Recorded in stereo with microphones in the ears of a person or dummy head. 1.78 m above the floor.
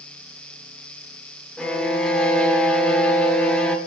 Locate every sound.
1.6 s a violin: 5° left (ahead or behind), 0.7 m